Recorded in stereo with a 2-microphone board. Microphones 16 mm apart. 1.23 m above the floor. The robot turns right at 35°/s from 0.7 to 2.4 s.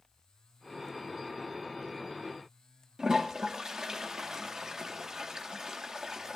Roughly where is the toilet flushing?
Right.